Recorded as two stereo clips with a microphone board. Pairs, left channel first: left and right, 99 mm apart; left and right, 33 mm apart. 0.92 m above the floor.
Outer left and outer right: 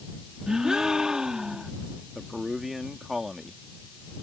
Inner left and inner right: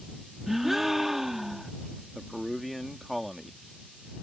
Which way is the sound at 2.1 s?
Centre (ahead or behind).